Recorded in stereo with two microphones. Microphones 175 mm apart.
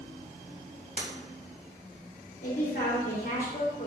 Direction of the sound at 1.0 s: 50° right (ahead or behind).